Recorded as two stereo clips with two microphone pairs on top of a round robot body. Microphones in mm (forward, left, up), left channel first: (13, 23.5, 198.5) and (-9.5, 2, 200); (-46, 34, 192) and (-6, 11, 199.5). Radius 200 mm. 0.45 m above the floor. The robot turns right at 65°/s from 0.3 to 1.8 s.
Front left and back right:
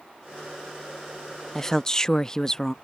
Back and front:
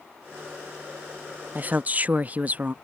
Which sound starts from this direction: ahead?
A woman speaking, at 1.6 s.